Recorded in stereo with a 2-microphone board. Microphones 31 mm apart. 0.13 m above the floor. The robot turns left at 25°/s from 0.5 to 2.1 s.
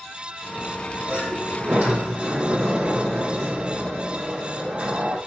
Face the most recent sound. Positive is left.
turn(degrees=-50)  # may be behind; listen again after turning